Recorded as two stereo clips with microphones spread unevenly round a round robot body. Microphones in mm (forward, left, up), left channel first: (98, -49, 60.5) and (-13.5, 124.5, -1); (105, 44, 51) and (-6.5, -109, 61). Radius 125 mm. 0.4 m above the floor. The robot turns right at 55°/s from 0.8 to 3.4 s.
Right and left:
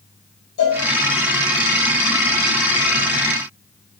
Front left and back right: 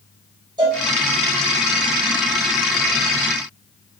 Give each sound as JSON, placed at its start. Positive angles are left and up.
{"t": 0.6, "sound": "a cowbell", "azimuth_deg": -60, "distance_m": 1.7}